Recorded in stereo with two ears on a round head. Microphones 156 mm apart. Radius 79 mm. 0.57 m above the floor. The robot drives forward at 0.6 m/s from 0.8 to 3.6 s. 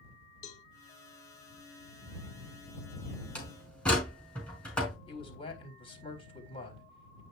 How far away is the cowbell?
About 1.4 m.